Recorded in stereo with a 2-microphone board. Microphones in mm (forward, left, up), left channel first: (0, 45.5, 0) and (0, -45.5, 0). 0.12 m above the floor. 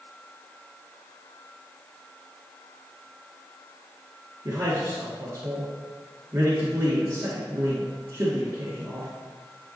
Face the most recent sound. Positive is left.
turn(degrees=-30)  # may be behind; listen again after turning